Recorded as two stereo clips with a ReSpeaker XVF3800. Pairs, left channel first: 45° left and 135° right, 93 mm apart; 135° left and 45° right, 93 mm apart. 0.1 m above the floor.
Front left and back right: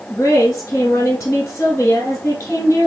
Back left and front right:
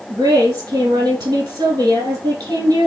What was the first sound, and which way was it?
A woman speaking, 10° right.